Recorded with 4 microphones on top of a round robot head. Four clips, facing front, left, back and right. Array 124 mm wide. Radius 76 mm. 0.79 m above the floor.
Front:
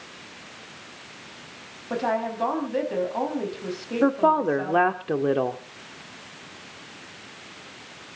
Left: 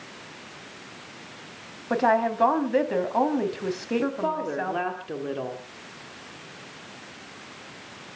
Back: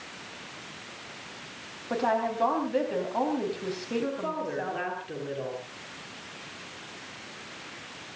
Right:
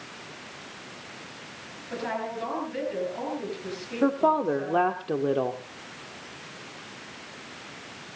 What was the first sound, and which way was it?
A woman speaking, 90° left.